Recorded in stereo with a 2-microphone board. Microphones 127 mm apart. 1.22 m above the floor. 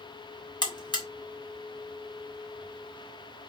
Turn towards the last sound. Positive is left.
turn(degrees=35)  # may be behind; listen again after turning